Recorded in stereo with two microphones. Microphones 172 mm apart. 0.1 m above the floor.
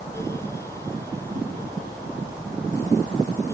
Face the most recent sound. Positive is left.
No sound to turn to.